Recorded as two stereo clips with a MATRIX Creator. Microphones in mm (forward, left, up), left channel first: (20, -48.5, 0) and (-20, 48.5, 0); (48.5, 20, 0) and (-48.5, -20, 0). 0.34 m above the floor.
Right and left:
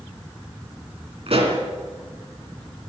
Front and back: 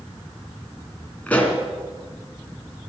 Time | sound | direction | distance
1.3 | a pop | 100° left | 2.5 m